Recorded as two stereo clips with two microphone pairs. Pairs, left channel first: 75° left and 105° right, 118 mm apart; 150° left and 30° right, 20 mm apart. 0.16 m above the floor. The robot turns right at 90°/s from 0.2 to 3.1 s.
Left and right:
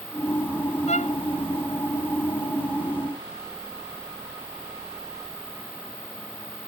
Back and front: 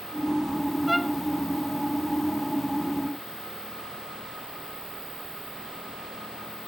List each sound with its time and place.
0.9 s a violin: 55° left; by 1.1 s 80° left